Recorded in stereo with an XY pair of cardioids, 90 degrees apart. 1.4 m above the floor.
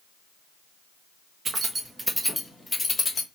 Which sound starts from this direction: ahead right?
Keys jangling, at 1.4 s.